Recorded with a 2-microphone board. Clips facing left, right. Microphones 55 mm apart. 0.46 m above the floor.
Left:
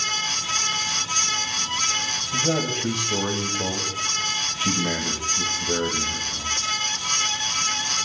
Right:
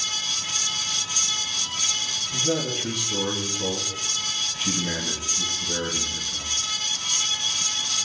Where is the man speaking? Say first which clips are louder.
Left 2 dB; 55° left (ahead or behind), 3 m.